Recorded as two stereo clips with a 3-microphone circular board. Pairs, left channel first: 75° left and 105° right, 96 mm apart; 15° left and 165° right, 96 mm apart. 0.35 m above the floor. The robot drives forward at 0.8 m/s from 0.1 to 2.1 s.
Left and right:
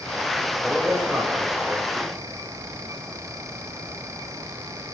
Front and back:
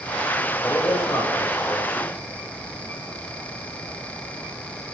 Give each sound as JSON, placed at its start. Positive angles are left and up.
{"t": 0.6, "sound": "a man speaking", "azimuth_deg": -30, "distance_m": 1.7}